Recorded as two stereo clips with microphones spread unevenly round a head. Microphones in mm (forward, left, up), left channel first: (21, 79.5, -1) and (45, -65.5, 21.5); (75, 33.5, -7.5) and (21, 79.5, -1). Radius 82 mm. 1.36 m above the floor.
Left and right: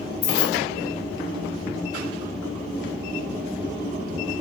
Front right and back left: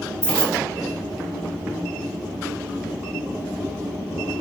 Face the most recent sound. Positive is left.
turn(degrees=85)